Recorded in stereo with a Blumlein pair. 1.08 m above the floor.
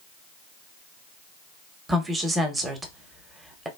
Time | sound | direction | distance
1.9 | a woman speaking | 15° right | 0.7 m